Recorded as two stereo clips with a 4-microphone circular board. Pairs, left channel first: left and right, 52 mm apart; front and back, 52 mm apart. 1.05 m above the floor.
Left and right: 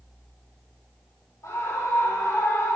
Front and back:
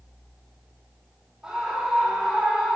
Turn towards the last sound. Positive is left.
turn(degrees=105)